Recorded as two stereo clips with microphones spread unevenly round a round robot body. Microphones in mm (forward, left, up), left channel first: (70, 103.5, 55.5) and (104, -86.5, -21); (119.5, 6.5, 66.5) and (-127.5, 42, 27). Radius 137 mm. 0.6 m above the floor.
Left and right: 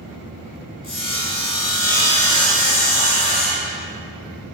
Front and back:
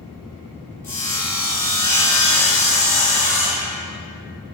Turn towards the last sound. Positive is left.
turn(degrees=75)